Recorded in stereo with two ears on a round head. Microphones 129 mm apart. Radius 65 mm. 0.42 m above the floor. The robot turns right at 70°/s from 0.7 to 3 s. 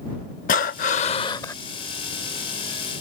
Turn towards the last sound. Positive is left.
turn(degrees=-100)